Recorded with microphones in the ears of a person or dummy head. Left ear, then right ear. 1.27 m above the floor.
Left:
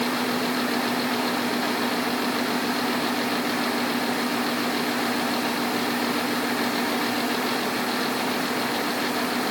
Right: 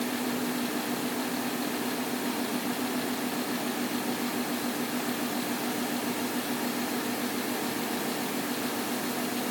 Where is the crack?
I don't hear a crack.